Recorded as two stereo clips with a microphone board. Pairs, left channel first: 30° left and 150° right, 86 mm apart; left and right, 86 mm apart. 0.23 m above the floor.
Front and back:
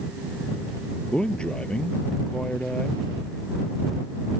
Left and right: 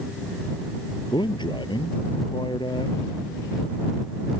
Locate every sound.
1.1 s a man speaking: 110° left